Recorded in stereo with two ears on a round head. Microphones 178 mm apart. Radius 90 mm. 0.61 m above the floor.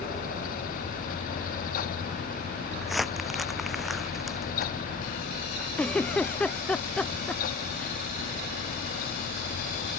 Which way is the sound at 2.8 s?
Centre (ahead or behind).